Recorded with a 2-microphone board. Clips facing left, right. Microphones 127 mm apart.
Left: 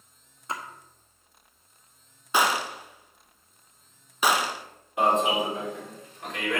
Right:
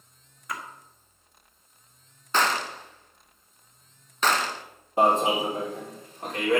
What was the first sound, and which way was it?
A splash, 25° left (ahead or behind).